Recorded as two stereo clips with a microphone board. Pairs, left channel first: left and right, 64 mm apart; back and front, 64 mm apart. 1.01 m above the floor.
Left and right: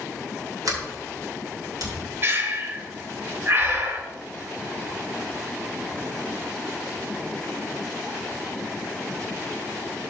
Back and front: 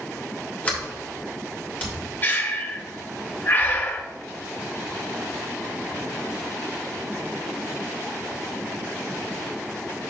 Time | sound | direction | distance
0.7 | a sliding door | 115° right | 2.5 m
2.2 | breathing | 130° right | 1.0 m